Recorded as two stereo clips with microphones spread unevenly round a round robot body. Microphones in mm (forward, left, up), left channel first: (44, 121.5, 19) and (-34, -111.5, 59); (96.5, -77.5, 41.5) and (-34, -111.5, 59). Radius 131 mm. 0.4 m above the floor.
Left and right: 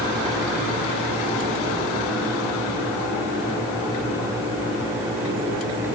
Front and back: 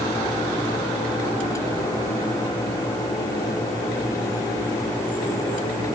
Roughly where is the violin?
No violin in this recording.